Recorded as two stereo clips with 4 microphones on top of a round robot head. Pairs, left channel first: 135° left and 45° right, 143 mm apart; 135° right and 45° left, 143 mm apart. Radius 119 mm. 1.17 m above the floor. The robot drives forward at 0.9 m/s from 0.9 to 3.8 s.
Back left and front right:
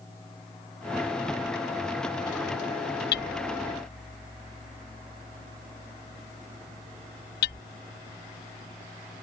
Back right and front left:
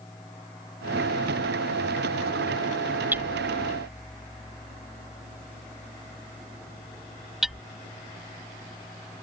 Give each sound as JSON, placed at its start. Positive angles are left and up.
{"t": 3.1, "sound": "hammering", "azimuth_deg": 125}